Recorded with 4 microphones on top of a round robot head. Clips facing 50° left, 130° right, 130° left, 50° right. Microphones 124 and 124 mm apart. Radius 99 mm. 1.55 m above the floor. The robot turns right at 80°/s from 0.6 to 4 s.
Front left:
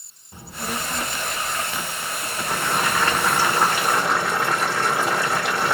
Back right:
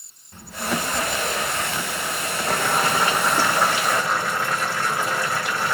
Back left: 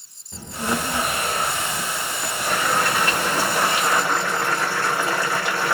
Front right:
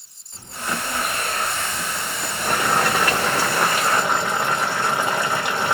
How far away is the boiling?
About 2 m.